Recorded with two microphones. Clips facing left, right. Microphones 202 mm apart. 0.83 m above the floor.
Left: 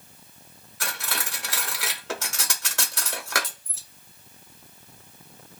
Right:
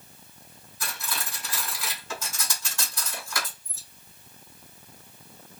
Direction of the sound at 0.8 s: 70° left (ahead or behind).